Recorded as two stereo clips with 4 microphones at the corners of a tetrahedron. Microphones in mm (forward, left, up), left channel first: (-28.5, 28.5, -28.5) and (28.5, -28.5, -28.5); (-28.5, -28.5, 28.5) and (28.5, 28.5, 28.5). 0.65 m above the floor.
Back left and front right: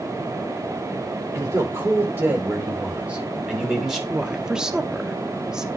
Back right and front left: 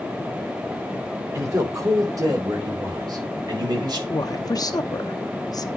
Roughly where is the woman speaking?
Behind right.